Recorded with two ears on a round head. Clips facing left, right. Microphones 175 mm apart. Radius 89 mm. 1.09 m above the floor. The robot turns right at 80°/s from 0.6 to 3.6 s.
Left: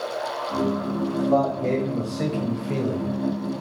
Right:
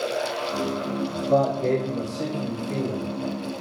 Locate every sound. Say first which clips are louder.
1.1 s a man speaking: even; 70° right, 0.9 m; by 3.1 s 90° left, 0.9 m